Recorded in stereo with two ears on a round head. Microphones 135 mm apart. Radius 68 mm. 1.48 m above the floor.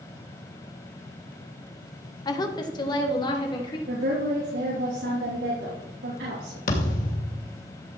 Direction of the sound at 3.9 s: 85° right.